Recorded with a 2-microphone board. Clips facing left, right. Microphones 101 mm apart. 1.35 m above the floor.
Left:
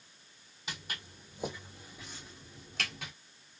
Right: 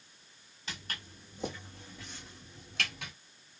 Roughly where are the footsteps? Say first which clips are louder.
Even; centre.